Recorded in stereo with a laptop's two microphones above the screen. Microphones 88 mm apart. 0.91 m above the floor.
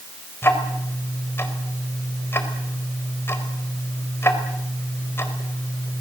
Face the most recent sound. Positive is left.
turn(degrees=25)  # may be behind; listen again after turning